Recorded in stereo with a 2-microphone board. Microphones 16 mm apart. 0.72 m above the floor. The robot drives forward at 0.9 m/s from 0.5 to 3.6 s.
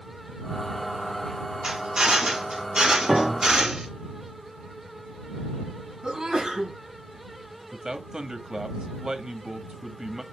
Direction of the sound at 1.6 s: 55° right (ahead or behind).